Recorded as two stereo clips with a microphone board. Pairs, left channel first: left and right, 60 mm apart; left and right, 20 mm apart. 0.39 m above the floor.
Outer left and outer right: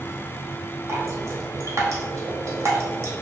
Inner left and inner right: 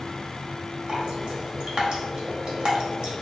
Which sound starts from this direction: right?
Dripping, at 0.9 s.